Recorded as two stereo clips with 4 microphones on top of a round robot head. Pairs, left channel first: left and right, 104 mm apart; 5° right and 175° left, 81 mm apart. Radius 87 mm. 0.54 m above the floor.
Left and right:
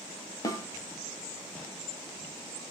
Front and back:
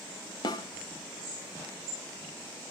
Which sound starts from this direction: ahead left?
A snare drum, at 0.4 s.